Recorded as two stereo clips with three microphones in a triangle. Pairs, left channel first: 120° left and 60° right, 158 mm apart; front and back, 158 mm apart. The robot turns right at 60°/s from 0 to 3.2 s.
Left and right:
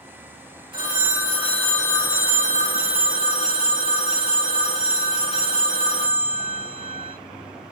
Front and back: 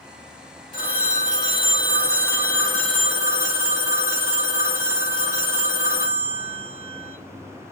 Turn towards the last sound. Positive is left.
turn(degrees=120)